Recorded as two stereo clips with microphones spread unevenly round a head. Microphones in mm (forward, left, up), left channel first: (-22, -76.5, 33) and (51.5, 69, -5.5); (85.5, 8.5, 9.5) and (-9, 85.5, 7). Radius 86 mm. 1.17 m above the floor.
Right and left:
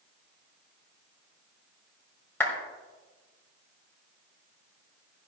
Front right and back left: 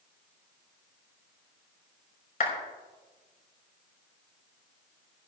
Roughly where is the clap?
Ahead right.